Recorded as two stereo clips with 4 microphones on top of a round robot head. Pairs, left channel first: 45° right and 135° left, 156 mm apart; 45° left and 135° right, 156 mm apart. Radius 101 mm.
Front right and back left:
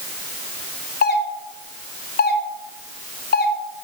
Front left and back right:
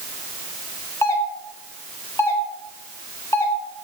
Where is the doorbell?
25° right, 2.5 m.